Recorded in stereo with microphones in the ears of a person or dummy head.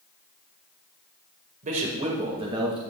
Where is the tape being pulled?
No tape being pulled in this recording.